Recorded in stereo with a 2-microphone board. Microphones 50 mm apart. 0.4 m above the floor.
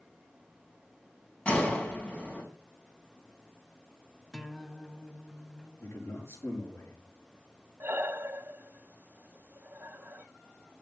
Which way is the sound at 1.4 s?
20° left (ahead or behind).